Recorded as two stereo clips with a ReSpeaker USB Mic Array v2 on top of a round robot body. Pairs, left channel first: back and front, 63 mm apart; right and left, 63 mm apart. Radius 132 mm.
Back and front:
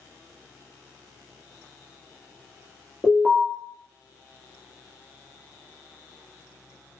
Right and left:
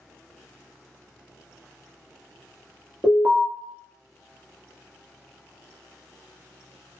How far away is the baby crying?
No baby crying in this recording.